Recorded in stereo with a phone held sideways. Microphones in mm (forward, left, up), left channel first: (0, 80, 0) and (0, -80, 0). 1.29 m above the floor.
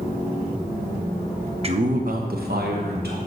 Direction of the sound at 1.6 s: 40° right (ahead or behind).